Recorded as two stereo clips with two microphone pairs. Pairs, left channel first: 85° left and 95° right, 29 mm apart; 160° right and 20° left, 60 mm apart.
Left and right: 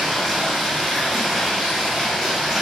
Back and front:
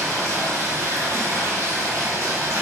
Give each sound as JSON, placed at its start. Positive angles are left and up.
{"t": 0.0, "sound": "running water", "azimuth_deg": 0, "distance_m": 0.8}